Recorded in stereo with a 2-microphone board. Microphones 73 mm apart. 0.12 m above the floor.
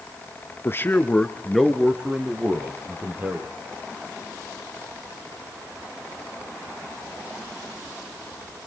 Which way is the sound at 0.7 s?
35° left (ahead or behind).